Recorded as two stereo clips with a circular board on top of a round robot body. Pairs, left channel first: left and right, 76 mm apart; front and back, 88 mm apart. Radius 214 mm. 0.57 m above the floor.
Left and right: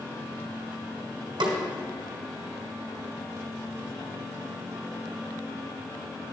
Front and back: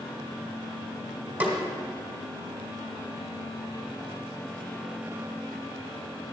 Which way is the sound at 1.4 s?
110° right.